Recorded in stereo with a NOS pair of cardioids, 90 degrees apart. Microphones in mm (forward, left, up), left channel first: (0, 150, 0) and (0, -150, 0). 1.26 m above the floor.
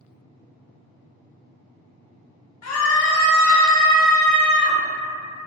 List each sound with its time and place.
2.6 s a scream: 60° left, 1.0 m; by 4.8 s 65° right, 1.3 m